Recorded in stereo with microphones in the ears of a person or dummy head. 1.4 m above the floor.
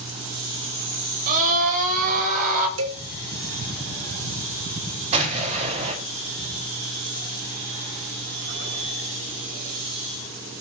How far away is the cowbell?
About 2 m.